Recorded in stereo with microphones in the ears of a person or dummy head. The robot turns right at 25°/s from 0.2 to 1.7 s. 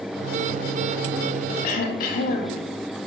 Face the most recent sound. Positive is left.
turn(degrees=50)  # may be behind; listen again after turning